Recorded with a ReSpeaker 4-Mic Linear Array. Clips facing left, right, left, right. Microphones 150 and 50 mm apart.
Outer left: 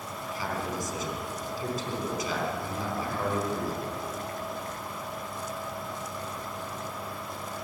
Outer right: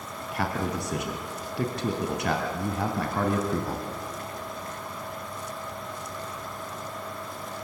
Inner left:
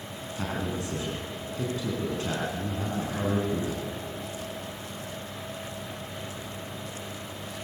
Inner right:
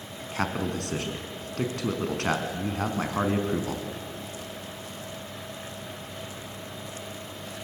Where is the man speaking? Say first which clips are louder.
Outer right 5 dB, inner right 4 dB; 70° right (ahead or behind), 3.5 m.